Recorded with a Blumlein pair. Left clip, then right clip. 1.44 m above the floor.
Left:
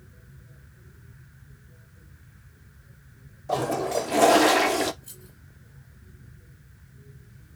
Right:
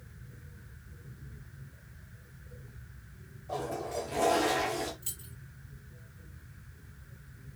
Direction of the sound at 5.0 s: 40° right.